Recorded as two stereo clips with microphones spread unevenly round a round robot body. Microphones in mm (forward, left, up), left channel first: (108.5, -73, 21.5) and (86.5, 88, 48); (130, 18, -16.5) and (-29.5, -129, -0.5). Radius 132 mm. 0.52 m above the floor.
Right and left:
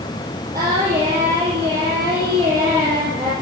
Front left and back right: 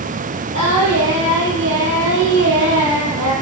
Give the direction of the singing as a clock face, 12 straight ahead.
6 o'clock.